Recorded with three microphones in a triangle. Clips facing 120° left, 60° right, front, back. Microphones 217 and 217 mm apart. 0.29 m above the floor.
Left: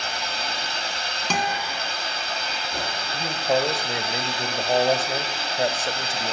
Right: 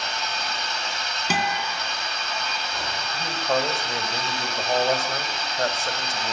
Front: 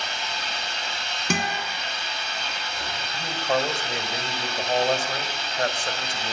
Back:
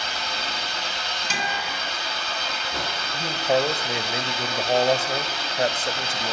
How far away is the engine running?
About 4.5 m.